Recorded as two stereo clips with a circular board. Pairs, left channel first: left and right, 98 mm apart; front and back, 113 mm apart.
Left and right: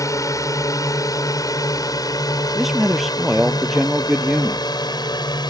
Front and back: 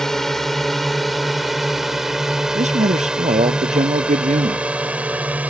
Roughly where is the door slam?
No door slam in this recording.